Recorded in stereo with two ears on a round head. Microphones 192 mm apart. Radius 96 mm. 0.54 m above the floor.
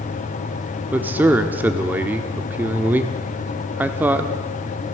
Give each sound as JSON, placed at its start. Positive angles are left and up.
{"t": 0.9, "sound": "a man speaking", "side_deg": -10, "distance_m": 1.2}